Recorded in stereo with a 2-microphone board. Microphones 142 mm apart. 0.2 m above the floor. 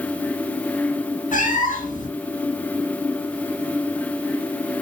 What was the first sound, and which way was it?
A cat meowing, 65° left (ahead or behind).